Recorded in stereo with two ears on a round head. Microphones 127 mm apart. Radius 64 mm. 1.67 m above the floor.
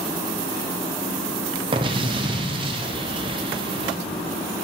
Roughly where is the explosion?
Right.